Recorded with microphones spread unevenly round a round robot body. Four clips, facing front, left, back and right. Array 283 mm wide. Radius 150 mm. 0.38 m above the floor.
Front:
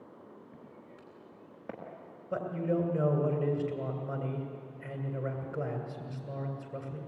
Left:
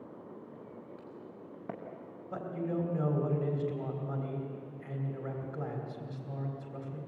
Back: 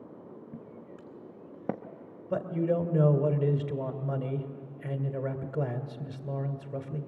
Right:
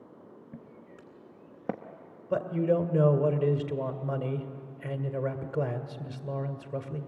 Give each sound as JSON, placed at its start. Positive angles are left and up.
{"t": 0.5, "sound": "footsteps", "azimuth_deg": -145, "distance_m": 2.0}
{"t": 2.3, "sound": "a man speaking", "azimuth_deg": -135, "distance_m": 1.8}